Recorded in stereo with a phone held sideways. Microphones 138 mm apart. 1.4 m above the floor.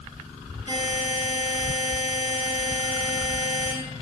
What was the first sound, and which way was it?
A buzzer, 55° left (ahead or behind).